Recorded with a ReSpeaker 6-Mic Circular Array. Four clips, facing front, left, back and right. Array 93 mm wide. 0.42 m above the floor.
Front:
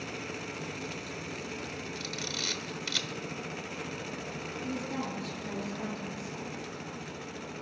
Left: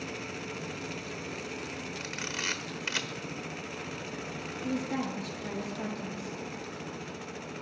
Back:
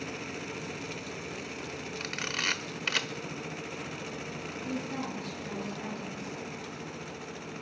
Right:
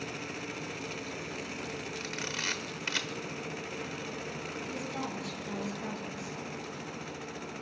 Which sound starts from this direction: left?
A woman speaking, at 4.6 s.